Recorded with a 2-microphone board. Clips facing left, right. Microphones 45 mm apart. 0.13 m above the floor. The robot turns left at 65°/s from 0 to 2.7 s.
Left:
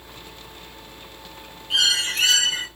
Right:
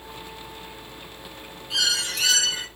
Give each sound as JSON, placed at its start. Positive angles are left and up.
{"t": 1.7, "sound": "a bird", "azimuth_deg": 140, "distance_m": 3.0}